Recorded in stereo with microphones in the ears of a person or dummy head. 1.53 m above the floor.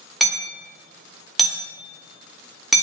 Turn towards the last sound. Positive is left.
turn(degrees=0)  # may be behind; listen again after turning